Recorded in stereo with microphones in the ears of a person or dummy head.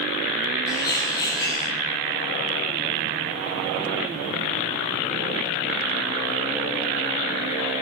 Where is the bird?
15° left (ahead or behind), 1.1 m.